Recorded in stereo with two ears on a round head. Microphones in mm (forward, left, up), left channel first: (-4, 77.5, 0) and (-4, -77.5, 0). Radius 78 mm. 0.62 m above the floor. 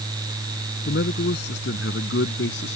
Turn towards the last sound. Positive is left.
turn(degrees=80)